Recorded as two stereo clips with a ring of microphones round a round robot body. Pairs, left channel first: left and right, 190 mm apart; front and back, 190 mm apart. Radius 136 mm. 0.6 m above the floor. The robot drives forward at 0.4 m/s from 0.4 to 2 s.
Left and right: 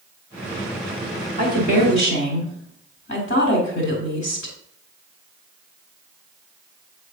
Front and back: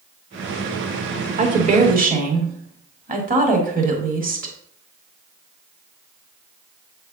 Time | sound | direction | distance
1.4 | a woman speaking | 135° left | 1.5 m